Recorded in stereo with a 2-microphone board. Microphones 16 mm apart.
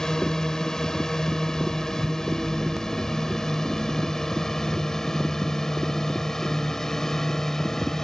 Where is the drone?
45° left (ahead or behind); by 8.1 s 35° left (ahead or behind).